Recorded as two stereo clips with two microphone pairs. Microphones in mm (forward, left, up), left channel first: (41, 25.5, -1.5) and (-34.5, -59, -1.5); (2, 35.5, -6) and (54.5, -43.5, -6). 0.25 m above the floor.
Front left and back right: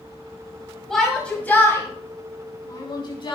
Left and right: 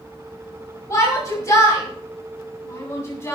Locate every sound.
0.9 s a shout: 130° left, 1.7 m; by 3.4 s 70° left, 2.5 m